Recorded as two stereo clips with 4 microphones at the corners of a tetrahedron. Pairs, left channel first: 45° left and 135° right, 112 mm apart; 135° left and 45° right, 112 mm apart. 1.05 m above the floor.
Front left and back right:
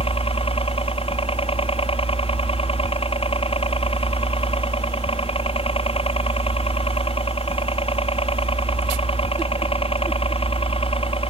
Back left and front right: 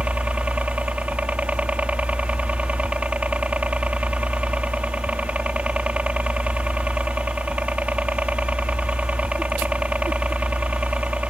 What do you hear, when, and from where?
0.0 s a helicopter: 30° left